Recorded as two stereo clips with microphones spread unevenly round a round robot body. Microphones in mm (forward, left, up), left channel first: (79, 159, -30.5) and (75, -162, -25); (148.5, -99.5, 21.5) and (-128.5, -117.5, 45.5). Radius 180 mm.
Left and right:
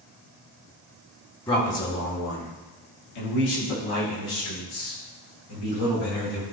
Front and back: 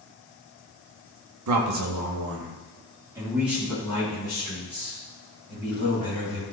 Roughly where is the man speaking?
Behind.